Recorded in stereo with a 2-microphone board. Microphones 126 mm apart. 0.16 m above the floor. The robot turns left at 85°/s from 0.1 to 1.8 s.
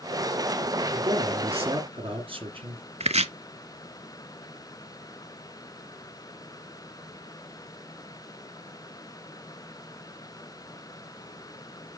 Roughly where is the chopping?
Right.